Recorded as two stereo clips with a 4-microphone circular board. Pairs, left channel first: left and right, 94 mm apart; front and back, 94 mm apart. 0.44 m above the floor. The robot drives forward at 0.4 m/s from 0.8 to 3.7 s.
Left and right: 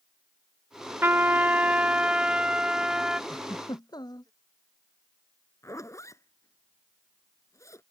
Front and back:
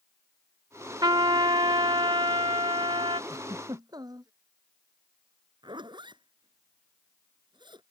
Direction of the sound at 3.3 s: 135° left.